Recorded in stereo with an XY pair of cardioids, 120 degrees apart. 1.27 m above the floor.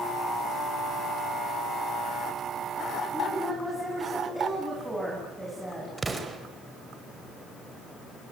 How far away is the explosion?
About 4.5 m.